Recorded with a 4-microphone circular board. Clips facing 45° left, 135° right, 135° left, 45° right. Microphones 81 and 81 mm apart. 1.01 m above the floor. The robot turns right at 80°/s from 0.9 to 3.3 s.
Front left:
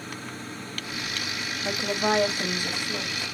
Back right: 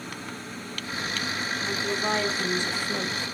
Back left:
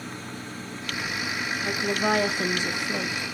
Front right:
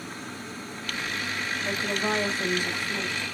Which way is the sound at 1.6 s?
50° left.